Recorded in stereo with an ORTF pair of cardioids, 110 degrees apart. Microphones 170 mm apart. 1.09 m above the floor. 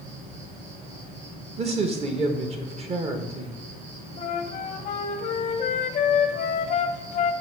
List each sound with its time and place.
0.0 s an insect: 50° right, 3 m
1.6 s a man speaking: 40° right, 1.1 m
4.2 s a flute: 50° left, 0.8 m